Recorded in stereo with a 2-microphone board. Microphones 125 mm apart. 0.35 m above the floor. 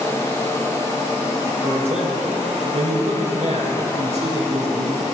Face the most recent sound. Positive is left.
turn(degrees=-65)  # may be behind; listen again after turning